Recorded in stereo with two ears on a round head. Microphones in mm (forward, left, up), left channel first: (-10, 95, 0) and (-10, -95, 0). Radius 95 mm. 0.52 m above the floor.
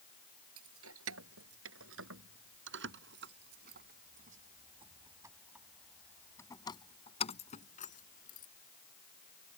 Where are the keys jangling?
80° right; by 8.5 s 45° left (ahead or behind).